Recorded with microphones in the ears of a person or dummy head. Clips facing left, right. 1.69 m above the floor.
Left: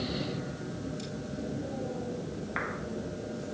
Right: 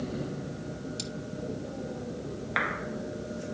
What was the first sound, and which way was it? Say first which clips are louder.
Cutlery clinking: right 1 dB; 65° right (ahead or behind).